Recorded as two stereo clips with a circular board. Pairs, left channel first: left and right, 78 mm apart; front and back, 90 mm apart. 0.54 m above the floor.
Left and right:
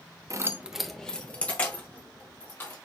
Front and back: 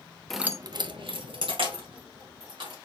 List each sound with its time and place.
0.3 s keys jangling: 85° right, 0.5 m; by 2.8 s 155° left, 3.5 m